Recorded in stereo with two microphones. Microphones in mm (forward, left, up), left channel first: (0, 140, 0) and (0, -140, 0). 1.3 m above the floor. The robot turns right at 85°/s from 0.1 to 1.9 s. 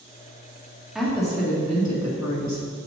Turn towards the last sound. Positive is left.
turn(degrees=80)